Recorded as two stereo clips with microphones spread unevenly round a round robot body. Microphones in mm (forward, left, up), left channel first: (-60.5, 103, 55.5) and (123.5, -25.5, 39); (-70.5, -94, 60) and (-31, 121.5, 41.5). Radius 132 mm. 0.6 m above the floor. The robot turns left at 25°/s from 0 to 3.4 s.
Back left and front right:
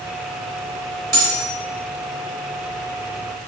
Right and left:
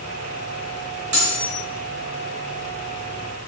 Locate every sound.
1.1 s cutlery clinking: 65° left, 1.5 m; by 1.5 s 60° left, 1.5 m